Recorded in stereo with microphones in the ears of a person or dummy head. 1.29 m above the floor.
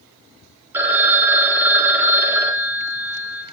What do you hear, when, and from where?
0.7 s a phone ringing: 10° right (ahead or behind), 0.7 m